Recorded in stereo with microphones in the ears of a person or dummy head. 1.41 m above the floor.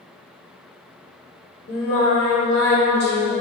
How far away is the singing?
About 1.1 m.